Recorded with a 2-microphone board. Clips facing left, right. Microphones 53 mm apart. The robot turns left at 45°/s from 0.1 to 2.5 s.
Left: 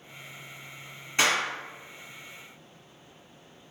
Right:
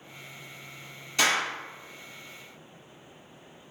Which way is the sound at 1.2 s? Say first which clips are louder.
Even; 30° left (ahead or behind).